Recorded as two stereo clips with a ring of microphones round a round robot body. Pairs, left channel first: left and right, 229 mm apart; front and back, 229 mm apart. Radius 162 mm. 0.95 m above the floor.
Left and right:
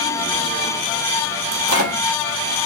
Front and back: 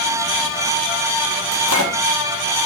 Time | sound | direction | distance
1.5 | a microwave | 130° right | 1.2 m